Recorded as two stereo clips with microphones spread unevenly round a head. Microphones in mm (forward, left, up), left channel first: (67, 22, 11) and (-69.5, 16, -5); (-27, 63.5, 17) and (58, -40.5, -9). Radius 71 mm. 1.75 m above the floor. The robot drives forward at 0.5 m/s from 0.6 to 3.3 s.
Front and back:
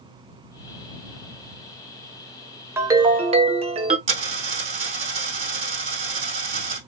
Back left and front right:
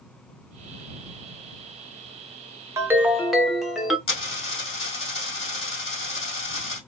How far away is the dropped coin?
About 2.5 m.